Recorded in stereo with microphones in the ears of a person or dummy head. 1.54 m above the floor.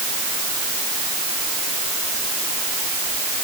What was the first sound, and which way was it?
Only background noise.